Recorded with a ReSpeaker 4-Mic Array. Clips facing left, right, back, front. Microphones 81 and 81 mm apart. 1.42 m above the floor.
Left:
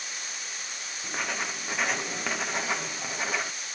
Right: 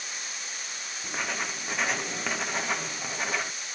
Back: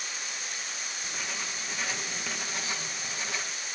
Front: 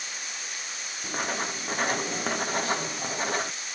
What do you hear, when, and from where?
1.0 s writing: straight ahead